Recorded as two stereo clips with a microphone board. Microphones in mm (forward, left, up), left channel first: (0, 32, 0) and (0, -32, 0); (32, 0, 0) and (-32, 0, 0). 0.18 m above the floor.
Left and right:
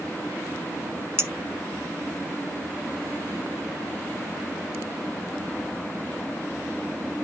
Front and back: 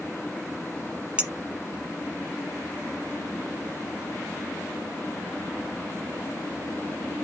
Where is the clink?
115° right, 1.4 m.